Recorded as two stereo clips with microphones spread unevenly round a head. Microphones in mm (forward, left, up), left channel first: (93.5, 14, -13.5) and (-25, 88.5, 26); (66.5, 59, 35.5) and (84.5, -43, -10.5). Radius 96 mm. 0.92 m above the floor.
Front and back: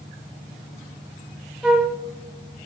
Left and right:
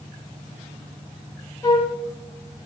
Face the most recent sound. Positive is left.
turn(degrees=70)